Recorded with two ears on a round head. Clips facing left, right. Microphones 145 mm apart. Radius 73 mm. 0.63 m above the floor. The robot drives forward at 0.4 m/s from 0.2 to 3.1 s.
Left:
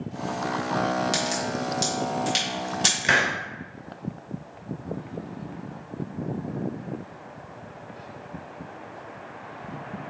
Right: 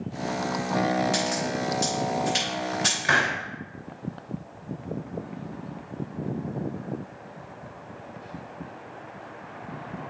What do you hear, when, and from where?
1.1 s a crack: 45° left (ahead or behind), 3.5 m; by 3.0 s 40° left (ahead or behind), 4 m
3.0 s a hiss: 25° left (ahead or behind), 0.8 m